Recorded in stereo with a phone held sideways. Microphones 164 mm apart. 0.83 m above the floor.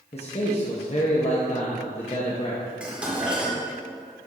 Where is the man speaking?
40° left (ahead or behind), 0.9 m.